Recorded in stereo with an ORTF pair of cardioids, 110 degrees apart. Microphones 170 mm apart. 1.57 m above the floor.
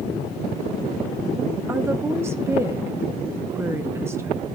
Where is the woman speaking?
15° right, 1.4 m.